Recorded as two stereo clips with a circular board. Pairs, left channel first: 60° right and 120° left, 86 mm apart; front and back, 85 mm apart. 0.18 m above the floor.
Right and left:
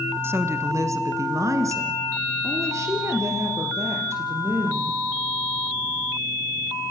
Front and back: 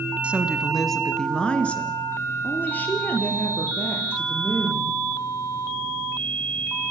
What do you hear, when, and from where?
0.2 s a woman speaking: 125° left, 1.5 m; by 5.0 s 65° left, 6.5 m